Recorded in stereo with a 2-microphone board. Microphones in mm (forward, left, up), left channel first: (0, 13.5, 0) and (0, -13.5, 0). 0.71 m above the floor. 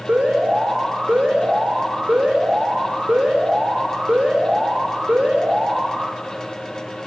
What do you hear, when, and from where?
0.1 s an alarm: 55° right (ahead or behind), 6 m